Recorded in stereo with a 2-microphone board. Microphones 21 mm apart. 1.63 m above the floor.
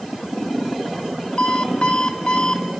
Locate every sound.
1.4 s an alarm clock: 55° left (ahead or behind), 3 m